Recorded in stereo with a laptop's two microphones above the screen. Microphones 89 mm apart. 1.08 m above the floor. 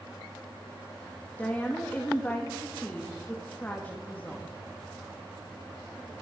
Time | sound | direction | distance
1.4 | a woman speaking | 20° left (ahead or behind) | 1.8 m